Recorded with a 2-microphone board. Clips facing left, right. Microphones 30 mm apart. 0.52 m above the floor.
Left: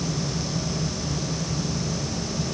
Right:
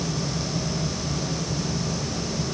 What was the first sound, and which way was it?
Only background noise.